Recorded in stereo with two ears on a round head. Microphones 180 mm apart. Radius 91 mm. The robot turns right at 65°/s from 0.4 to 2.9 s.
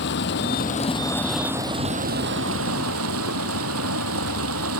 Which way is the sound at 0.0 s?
120° left.